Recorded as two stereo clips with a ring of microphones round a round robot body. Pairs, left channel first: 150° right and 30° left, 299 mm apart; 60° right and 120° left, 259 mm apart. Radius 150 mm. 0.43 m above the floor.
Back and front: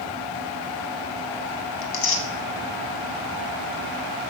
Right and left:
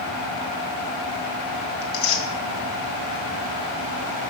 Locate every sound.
1.8 s tearing paper: 105° right, 2 m